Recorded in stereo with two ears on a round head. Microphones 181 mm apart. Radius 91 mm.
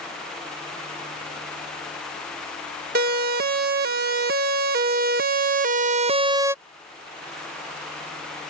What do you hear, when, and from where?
3.0 s a siren: 50° right (ahead or behind); by 6.5 s 10° right (ahead or behind)